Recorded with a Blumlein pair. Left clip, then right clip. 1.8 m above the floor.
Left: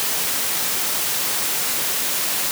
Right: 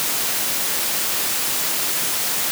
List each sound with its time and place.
Only background noise.